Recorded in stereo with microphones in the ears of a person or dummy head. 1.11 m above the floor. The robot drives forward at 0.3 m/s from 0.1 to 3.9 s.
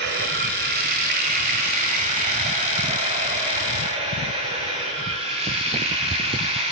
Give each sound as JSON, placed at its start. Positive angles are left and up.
{"t": 0.0, "sound": "running water", "side_deg": -55, "distance_m": 1.7}